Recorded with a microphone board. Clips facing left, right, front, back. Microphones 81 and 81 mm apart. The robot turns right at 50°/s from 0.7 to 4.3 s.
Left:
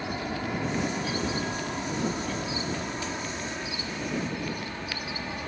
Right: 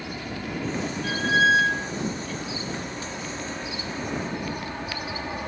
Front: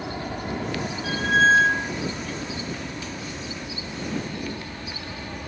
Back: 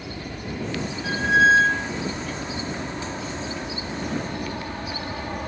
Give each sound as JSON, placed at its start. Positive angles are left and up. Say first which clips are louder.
{"t": 0.0, "sound": "an aircraft", "louder": "left 2 dB, front 3 dB", "azimuth_deg": 25}
{"t": 1.0, "sound": "a squeak", "louder": "right 9 dB, back 1 dB", "azimuth_deg": -120}